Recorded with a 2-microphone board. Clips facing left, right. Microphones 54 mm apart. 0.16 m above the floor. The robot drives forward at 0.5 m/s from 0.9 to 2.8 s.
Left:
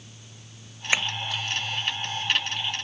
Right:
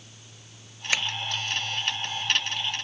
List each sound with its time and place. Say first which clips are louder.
0.9 s tapping: left 2 dB; 20° left (ahead or behind), 0.7 m